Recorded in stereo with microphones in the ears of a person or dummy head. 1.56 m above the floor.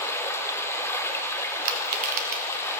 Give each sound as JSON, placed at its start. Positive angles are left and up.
{"t": 0.0, "sound": "running water", "side_deg": 15, "distance_m": 0.8}
{"t": 1.6, "sound": "crushing", "side_deg": -45, "distance_m": 1.3}